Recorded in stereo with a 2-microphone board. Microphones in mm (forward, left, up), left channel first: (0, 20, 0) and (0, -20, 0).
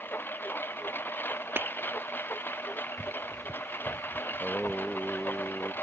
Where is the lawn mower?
70° left (ahead or behind).